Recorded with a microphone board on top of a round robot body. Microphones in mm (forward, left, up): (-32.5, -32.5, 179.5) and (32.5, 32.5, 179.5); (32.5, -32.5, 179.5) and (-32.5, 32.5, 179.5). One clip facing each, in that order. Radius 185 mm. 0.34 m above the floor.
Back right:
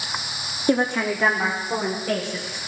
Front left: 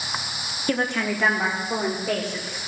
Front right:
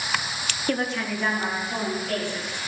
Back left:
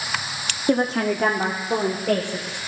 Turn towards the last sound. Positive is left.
turn(degrees=130)